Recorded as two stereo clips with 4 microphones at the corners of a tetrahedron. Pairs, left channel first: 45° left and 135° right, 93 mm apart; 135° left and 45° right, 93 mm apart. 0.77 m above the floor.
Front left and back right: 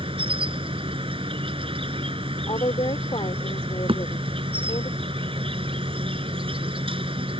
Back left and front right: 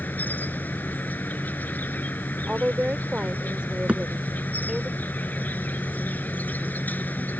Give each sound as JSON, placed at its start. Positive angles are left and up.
{"t": 0.0, "sound": "an insect", "azimuth_deg": -155}
{"t": 2.5, "sound": "a woman speaking", "azimuth_deg": 35}
{"t": 3.9, "sound": "a thud", "azimuth_deg": -120}